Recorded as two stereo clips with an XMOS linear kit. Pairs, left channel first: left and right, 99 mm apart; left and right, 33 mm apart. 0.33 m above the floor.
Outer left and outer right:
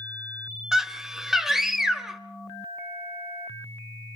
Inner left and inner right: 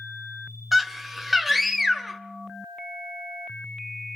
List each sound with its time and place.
0.7 s a scream: 5° right (ahead or behind), 0.9 m